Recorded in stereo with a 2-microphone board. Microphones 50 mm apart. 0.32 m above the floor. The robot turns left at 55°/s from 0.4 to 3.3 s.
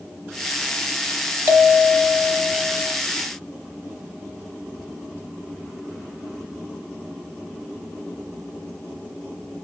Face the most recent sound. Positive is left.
turn(degrees=-150)